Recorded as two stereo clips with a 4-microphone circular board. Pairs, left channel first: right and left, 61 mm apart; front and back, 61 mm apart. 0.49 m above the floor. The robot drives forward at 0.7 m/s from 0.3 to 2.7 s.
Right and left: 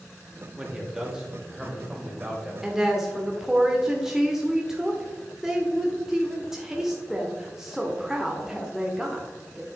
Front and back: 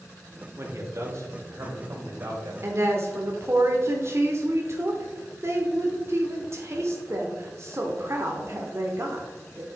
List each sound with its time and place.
0.6 s a man speaking: 160° left, 1.7 m; by 2.5 s 170° left, 3 m
2.6 s a woman speaking: 170° left, 1.1 m